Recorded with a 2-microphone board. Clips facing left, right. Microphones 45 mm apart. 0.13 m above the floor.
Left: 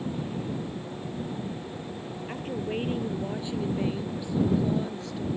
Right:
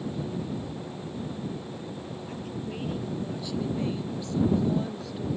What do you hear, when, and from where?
2.3 s a woman speaking: 45° left (ahead or behind); by 5.3 s 10° right (ahead or behind)